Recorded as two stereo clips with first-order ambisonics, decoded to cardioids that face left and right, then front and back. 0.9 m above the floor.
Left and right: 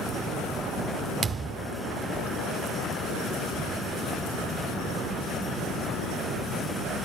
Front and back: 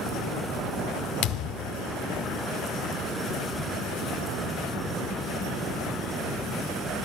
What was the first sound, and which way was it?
A thud, 25° right.